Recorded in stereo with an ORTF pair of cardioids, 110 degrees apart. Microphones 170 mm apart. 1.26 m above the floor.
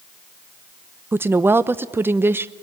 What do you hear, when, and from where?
1.1 s a woman speaking: 15° right, 0.8 m